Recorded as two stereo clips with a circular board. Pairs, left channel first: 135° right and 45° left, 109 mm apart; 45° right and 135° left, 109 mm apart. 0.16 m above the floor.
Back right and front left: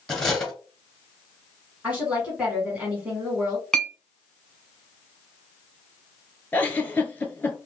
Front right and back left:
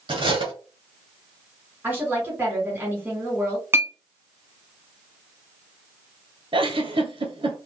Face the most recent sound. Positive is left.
turn(degrees=155)